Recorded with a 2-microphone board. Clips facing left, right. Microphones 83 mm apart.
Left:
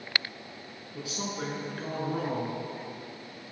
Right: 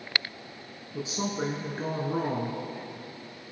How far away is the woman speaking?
About 1.4 m.